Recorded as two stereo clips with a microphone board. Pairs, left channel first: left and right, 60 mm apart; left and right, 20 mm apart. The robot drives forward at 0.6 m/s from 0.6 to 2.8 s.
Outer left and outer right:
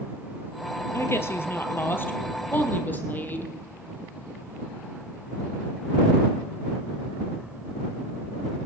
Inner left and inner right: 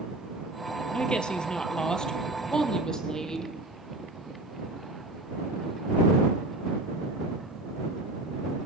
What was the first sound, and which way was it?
A woman speaking, 45° left (ahead or behind).